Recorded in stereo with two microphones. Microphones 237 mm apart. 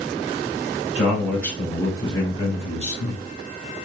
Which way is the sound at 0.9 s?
Centre (ahead or behind).